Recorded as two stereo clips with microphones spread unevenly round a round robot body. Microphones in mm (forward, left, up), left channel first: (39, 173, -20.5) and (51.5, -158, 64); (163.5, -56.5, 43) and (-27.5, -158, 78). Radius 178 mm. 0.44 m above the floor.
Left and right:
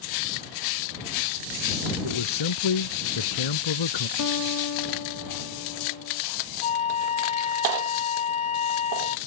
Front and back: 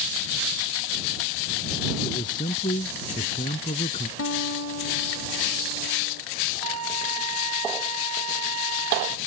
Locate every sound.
2.0 s a man speaking: 100° left
4.2 s a guitar: 50° left
6.6 s a flute: 165° left